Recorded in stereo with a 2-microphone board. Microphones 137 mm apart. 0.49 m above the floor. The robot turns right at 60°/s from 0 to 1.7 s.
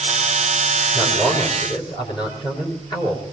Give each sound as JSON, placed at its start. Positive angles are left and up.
{"t": 0.9, "sound": "a man speaking", "azimuth_deg": -10, "distance_m": 6.5}